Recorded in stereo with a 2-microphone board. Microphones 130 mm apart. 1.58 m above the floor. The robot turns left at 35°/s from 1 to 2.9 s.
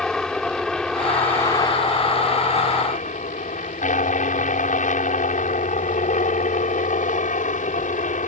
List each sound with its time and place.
0.0 s a helicopter: 175° left; by 8.3 s 110° left